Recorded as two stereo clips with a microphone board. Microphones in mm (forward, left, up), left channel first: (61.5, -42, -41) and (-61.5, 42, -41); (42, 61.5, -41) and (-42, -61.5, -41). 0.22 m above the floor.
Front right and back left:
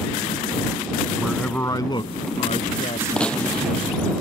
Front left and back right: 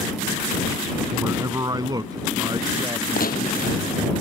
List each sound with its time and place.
1.2 s a man speaking: 150° right; by 4.2 s 60° right
3.2 s a gunshot: 50° left